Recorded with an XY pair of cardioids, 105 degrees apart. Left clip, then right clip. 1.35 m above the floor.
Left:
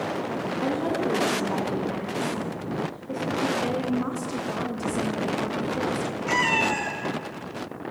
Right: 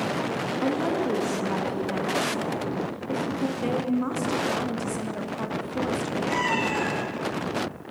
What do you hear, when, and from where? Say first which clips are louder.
0.6 s a woman speaking: even; 10° right, 1.9 m
3.6 s a woman speaking: even; 10° right, 1.5 m
6.3 s a cat meowing: left 4 dB; 65° left, 3 m